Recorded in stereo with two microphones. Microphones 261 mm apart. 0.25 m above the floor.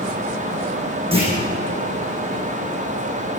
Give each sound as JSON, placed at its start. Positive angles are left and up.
{"t": 1.1, "sound": "a clunk", "side_deg": -20, "distance_m": 10.0}